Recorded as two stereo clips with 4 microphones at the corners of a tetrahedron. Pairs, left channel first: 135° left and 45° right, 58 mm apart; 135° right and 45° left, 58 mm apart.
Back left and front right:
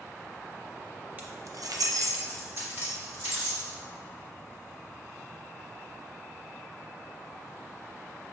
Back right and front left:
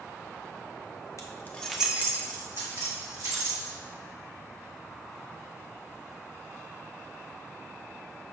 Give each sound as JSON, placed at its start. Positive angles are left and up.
{"t": 1.2, "sound": "keys jangling", "azimuth_deg": -105, "distance_m": 0.6}